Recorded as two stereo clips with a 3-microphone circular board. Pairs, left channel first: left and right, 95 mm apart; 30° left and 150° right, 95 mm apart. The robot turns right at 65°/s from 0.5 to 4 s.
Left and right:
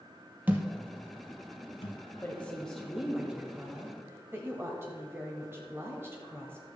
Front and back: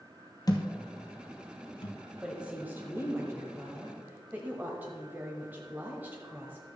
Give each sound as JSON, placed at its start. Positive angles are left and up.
{"t": 0.5, "sound": "a thud", "azimuth_deg": -20, "distance_m": 1.3}
{"t": 2.2, "sound": "a woman speaking", "azimuth_deg": 135, "distance_m": 1.2}